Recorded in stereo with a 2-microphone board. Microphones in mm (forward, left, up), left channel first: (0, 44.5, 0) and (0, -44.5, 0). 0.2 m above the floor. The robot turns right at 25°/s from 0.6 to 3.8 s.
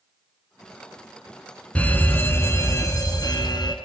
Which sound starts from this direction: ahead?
A fire alarm, at 1.8 s.